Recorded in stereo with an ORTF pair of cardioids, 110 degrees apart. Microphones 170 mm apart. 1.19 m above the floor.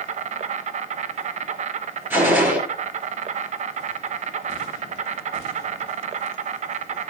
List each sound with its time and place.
0.0 s an insect: 45° right, 0.9 m
2.1 s a gunshot: 10° right, 4 m